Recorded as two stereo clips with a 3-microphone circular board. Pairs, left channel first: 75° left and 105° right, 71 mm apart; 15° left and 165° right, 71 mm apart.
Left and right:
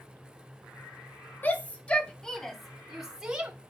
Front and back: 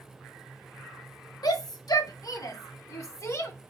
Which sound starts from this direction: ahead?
A shout, at 1.4 s.